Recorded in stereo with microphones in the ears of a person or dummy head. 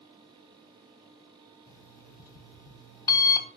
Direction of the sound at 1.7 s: 25° left (ahead or behind).